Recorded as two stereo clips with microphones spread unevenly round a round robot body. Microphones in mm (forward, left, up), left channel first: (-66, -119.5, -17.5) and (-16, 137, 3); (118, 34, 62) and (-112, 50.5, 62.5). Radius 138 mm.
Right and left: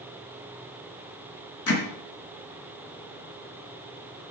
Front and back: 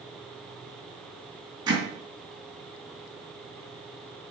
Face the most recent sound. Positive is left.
turn(degrees=-110)